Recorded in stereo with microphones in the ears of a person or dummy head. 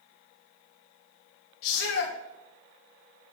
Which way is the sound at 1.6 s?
65° left (ahead or behind).